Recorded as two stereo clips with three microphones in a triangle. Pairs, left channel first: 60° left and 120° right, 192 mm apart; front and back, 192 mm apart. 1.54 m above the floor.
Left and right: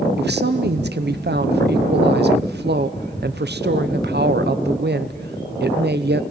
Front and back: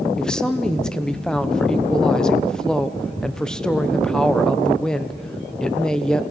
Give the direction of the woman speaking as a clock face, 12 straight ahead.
3 o'clock.